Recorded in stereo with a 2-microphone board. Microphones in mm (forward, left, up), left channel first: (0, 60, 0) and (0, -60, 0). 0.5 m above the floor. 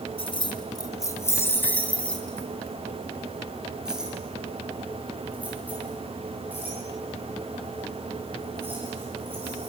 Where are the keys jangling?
50° left (ahead or behind), 1.9 m; by 9.7 s 20° right (ahead or behind), 10.5 m.